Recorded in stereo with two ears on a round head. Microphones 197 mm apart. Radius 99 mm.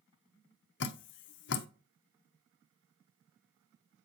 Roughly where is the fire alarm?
I don't hear a fire alarm.